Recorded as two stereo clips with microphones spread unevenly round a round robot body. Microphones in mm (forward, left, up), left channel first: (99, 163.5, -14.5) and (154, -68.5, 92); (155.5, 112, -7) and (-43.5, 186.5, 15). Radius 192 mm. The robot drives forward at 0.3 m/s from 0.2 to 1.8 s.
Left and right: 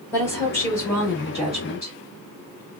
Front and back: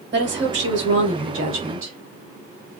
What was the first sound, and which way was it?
A woman speaking, 155° left.